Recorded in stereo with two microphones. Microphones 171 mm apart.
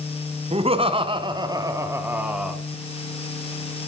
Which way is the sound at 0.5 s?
40° right (ahead or behind).